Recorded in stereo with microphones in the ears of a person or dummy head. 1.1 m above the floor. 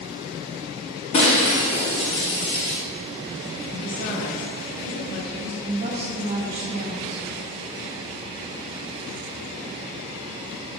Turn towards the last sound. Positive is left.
turn(degrees=-30)  # may be behind; listen again after turning